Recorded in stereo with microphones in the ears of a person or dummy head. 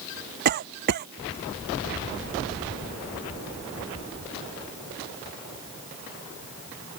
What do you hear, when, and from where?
0.5 s a cough: 50° right (ahead or behind)